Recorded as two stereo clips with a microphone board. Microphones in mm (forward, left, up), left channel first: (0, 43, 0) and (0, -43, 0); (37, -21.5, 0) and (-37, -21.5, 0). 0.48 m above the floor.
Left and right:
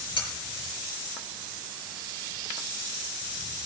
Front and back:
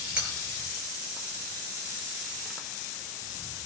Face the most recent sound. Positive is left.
turn(degrees=105)